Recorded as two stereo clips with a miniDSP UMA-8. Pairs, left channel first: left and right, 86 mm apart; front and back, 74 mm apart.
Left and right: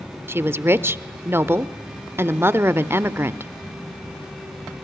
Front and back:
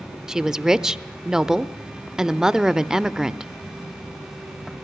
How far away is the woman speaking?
About 0.8 m.